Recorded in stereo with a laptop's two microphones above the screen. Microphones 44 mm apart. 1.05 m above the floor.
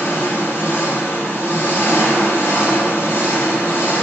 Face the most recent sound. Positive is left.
turn(degrees=70)  # may be behind; listen again after turning